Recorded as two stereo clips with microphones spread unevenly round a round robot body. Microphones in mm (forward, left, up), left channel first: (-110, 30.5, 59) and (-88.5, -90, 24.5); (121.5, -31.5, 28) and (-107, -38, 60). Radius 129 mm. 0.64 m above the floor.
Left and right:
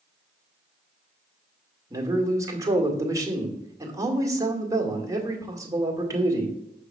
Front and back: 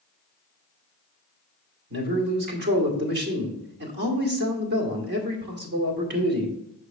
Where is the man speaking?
135° right, 2 m.